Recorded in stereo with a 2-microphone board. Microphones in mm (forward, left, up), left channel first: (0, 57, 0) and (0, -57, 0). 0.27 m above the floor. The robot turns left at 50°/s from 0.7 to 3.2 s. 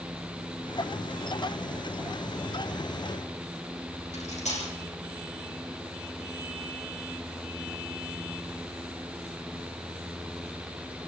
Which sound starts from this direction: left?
Cutlery clinking, at 4.1 s.